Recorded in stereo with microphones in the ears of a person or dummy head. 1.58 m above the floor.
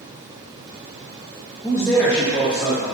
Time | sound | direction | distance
1.6 | a man speaking | 10° left (ahead or behind) | 1.5 m